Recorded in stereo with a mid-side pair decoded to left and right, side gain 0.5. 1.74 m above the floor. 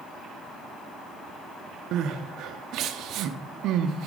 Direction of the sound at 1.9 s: 65° right.